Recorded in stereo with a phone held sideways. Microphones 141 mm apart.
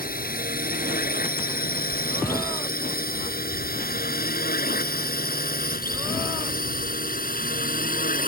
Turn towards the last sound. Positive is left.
turn(degrees=70)  # may be behind; listen again after turning